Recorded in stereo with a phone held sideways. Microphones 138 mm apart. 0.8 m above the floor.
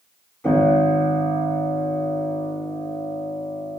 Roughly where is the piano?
Centre.